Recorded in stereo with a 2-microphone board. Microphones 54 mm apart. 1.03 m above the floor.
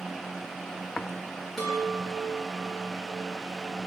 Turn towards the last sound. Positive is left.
turn(degrees=0)  # may be behind; listen again after turning